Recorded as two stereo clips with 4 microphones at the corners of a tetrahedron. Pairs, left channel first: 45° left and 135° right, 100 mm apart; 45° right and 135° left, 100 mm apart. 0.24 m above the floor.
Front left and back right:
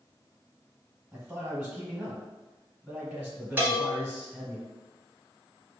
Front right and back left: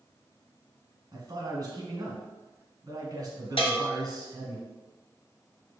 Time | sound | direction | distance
1.1 | a man speaking | 145° left | 1.2 m
3.6 | a bell | 65° right | 1.2 m